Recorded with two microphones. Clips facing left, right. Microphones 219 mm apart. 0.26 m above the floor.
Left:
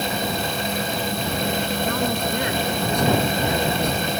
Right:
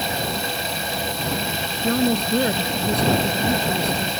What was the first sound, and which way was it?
A woman speaking, 35° right (ahead or behind).